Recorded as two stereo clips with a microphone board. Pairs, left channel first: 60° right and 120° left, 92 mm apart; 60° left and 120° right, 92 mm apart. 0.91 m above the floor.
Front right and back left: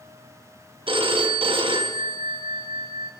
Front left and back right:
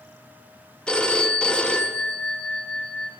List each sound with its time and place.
0.9 s a phone ringing: 140° left, 0.7 m